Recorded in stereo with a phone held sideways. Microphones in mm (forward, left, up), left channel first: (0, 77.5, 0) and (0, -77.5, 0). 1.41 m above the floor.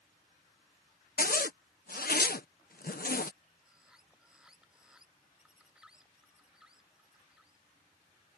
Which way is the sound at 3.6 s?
5° right (ahead or behind).